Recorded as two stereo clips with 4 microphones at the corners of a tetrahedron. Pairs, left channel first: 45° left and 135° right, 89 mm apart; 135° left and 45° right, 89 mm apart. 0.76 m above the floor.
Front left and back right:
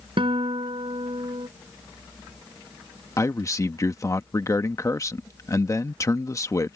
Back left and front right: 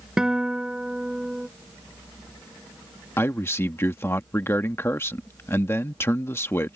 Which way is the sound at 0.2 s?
130° right.